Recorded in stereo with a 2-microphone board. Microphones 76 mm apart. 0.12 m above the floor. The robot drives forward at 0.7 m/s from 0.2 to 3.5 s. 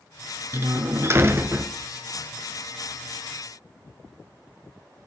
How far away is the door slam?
About 0.9 m.